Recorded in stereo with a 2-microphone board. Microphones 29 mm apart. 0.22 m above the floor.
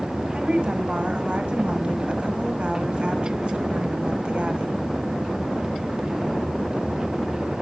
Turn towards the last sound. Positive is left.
turn(degrees=-35)  # may be behind; listen again after turning